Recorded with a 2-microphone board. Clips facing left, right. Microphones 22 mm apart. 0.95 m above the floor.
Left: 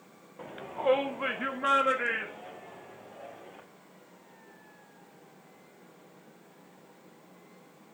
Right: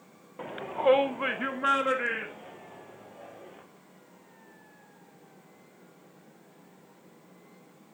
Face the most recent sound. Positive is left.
turn(degrees=0)  # may be behind; listen again after turning